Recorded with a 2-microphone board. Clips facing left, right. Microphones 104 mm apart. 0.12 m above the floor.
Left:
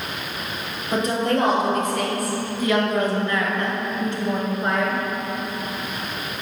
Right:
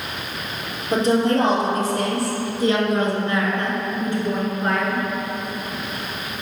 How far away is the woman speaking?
About 2.5 m.